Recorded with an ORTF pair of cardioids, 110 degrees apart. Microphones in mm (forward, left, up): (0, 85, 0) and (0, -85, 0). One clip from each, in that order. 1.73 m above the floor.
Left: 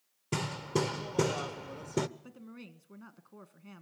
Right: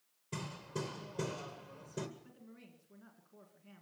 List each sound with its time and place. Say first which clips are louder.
0.3 s hammering: left 10 dB; 70° left, 1.0 m
2.2 s a woman speaking: left 8 dB; 65° left, 1.7 m